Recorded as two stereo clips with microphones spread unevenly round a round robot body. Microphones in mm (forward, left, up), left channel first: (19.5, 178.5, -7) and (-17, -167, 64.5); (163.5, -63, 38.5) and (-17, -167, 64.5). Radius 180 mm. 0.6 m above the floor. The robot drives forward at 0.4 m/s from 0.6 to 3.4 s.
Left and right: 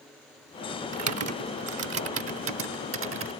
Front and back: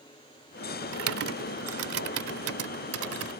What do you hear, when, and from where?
0.9 s typing on a keyboard: 150° right; by 3.3 s 155° right